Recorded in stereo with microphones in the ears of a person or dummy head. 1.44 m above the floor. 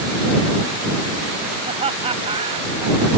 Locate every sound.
1.6 s laughter: 30° right (ahead or behind); by 3.2 s 20° right (ahead or behind)